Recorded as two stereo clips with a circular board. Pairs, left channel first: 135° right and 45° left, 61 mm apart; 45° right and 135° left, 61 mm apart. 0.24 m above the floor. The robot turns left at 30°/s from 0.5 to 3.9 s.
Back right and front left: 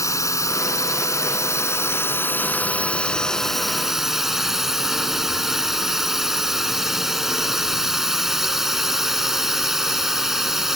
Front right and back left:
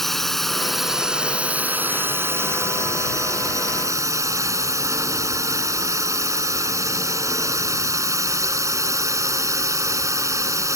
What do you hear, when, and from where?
0.0 s a drone: 130° right; by 10.8 s 125° left